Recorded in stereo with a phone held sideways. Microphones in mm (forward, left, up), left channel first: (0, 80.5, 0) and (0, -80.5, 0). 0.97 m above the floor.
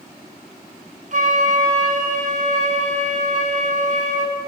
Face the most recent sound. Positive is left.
turn(degrees=-50)  # may be behind; listen again after turning